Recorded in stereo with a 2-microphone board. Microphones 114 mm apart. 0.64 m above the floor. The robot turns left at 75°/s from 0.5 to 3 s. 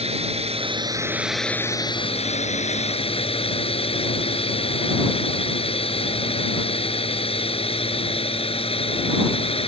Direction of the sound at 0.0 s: 115° right.